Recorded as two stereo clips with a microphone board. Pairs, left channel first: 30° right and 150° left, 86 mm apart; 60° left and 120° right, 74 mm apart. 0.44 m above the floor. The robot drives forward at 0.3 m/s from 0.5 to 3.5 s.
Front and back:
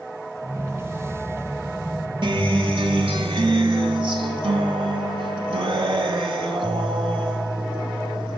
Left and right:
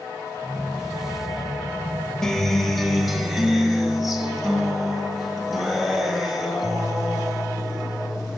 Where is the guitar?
145° left, 1.0 m; by 8.4 s 155° left, 1.3 m.